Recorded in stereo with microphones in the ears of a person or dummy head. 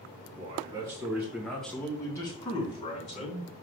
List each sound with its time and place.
0.4 s a man speaking: 30° right (ahead or behind), 1.4 m; by 3.5 s 40° left (ahead or behind), 2 m